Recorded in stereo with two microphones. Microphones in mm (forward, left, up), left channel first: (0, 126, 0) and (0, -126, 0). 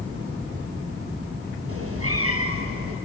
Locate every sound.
1.7 s a cat meowing: 70° right (ahead or behind), 2.5 m